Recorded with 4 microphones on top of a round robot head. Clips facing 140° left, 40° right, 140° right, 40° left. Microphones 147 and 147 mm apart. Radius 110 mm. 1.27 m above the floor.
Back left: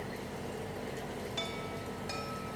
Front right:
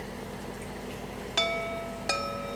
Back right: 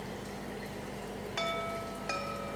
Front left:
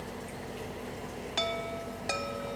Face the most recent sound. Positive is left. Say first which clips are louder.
# front right 8 dB, front left 2 dB
turn(degrees=-20)